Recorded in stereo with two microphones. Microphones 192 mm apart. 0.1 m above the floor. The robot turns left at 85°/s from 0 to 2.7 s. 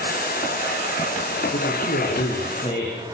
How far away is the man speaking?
About 10 m.